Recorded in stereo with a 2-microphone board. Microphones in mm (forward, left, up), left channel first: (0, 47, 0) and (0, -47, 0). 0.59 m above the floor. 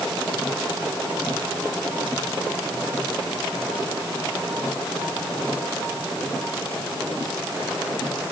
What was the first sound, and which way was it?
Only background noise.